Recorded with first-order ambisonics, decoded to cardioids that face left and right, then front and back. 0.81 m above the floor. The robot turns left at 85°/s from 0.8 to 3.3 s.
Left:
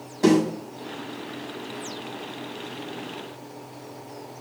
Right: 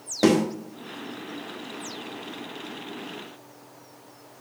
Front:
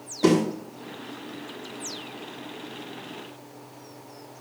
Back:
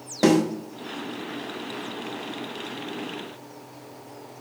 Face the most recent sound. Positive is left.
turn(degrees=15)